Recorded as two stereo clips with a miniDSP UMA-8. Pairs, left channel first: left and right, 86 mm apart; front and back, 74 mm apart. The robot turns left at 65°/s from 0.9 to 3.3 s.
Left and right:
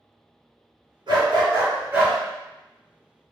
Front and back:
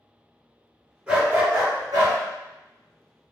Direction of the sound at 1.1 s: 100° right.